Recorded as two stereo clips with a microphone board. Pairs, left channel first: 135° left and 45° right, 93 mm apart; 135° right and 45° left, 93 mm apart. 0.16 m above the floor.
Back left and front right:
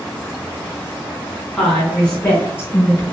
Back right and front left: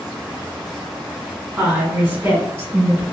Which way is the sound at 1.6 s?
55° left.